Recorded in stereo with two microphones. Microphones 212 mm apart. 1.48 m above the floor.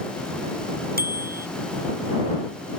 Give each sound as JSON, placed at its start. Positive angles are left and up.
{"t": 1.0, "sound": "a bicycle bell", "side_deg": -45}